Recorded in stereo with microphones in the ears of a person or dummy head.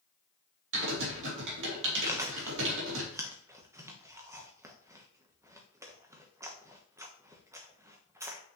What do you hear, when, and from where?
0.7 s typing on a keyboard: 60° right (ahead or behind), 2.5 m
2.1 s chewing: 10° right (ahead or behind), 1.2 m